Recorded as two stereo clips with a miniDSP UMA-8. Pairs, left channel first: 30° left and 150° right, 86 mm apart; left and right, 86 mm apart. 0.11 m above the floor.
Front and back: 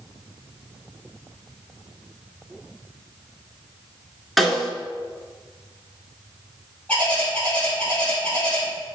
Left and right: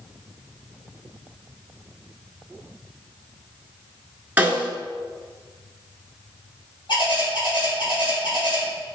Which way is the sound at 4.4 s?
60° right.